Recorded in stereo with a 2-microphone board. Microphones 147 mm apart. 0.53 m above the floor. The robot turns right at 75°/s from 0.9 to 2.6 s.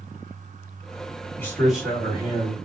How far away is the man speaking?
About 1.6 m.